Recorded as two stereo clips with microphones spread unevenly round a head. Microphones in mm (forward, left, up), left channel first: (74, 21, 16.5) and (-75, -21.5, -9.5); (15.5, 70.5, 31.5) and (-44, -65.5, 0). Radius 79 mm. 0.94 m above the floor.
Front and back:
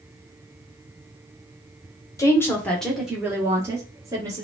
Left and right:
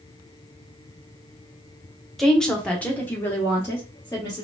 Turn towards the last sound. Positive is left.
turn(degrees=145)